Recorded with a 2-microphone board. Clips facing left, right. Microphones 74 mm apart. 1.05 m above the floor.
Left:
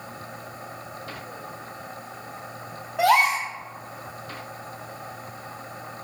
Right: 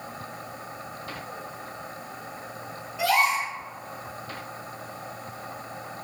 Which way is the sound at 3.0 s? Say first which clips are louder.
Left 4 dB; 65° left (ahead or behind).